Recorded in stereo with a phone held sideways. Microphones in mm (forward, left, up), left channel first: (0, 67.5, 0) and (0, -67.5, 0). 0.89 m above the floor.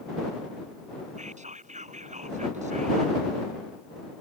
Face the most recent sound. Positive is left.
turn(degrees=-65)  # may be behind; listen again after turning